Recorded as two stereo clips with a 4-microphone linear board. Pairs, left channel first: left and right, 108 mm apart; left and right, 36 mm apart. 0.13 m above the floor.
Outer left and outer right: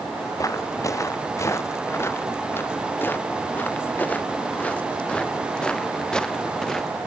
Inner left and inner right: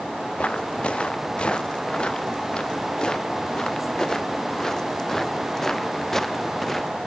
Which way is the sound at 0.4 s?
30° left (ahead or behind).